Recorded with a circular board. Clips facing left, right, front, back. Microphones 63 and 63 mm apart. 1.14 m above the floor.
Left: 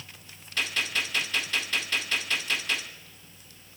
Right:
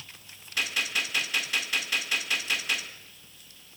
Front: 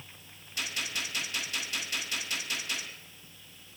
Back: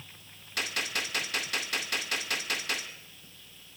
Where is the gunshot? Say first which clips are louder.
Even, back 3 dB; 170° right, 2 m.